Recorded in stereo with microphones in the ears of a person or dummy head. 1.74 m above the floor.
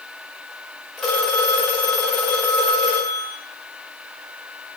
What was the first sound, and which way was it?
A phone ringing, centre (ahead or behind).